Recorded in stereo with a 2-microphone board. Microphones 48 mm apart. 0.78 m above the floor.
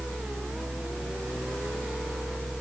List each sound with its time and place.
Only background noise.